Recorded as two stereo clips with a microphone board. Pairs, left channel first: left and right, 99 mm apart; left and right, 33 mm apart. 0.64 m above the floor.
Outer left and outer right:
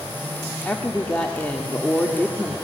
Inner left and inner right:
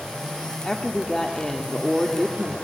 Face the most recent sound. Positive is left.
turn(degrees=15)  # may be behind; listen again after turning